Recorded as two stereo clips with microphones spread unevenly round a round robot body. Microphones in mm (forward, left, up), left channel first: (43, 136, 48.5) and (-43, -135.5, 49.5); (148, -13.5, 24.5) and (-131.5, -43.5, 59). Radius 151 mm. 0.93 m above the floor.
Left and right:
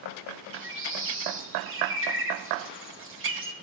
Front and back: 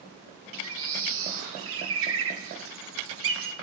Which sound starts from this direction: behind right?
A bird, at 0.5 s.